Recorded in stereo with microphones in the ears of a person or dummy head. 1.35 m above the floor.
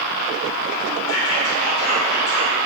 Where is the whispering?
80° left, 1.1 m.